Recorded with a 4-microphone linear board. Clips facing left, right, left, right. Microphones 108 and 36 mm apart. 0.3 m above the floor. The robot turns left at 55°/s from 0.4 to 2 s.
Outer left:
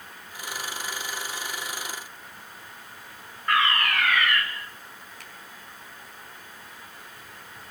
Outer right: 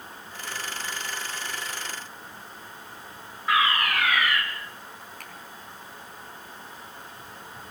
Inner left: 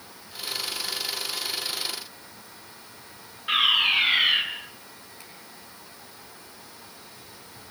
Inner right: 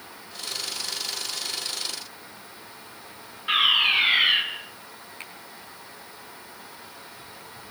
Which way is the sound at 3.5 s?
5° right (ahead or behind).